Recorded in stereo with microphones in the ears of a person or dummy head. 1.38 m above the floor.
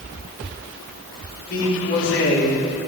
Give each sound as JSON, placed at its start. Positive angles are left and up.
{"t": 1.5, "sound": "a man speaking", "side_deg": 65, "distance_m": 3.5}